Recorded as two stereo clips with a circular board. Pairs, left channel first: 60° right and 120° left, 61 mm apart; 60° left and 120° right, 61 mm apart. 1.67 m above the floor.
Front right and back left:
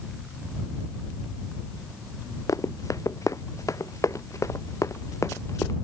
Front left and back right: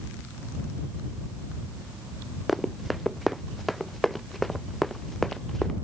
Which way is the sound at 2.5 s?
30° right.